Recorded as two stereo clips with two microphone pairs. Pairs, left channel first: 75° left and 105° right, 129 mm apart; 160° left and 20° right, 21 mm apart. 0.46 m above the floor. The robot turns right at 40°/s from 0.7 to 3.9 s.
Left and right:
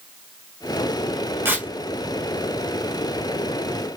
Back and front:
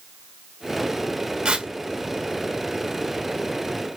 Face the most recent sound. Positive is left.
turn(degrees=65)